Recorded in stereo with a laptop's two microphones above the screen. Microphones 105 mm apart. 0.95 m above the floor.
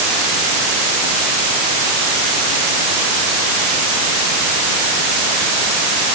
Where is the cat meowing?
I don't hear a cat meowing.